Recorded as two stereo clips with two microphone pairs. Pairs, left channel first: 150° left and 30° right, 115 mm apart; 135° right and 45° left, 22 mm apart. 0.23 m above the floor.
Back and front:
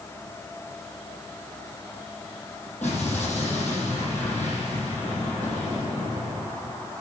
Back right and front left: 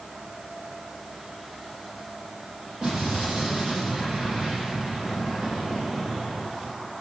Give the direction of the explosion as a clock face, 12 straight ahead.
10 o'clock.